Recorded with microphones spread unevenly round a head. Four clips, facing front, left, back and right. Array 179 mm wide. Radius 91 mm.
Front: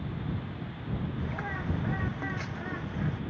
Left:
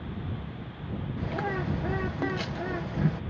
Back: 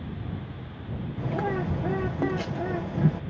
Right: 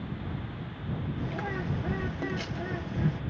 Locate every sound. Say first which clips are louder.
1.2 s a bird: left 6 dB, back 7 dB; 165° left